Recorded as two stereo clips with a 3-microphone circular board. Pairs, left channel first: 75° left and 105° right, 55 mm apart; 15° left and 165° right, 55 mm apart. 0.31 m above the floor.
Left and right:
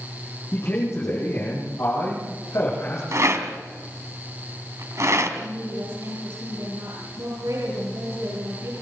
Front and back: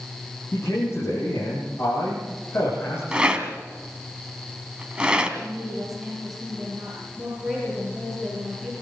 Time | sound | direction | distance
0.5 | a man speaking | 40° left | 9.5 m
3.1 | a rattle | 95° right | 2 m
5.4 | a woman speaking | 75° right | 7 m